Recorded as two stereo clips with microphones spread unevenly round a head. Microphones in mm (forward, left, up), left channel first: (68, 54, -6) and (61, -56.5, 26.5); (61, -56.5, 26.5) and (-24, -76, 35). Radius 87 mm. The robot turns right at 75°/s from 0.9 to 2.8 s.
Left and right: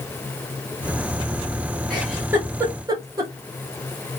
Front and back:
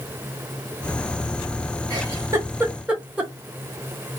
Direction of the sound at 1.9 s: 170° right.